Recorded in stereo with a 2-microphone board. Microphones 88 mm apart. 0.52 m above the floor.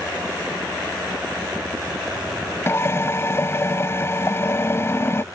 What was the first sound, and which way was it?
A drill, 35° left (ahead or behind).